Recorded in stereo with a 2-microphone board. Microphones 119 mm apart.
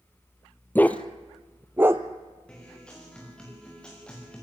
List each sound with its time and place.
0.8 s a dog barking: 15° left (ahead or behind), 1.3 m; by 2.0 s 25° right (ahead or behind), 1.5 m
2.5 s a guitar: 10° left (ahead or behind), 6.5 m